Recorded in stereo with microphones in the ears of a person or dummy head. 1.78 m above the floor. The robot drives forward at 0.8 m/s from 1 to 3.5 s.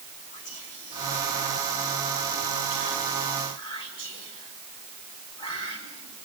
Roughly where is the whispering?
Left.